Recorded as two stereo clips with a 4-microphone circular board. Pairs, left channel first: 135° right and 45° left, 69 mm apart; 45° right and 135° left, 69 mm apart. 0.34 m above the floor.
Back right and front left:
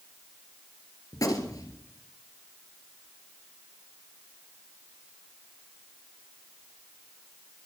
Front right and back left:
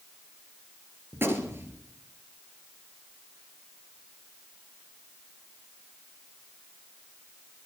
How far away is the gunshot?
About 2 m.